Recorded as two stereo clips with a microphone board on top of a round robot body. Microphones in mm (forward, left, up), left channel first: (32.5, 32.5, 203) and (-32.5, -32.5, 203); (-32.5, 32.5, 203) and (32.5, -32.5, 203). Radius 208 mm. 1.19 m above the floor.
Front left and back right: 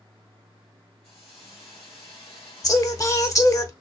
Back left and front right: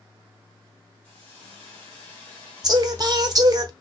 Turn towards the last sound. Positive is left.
turn(degrees=-5)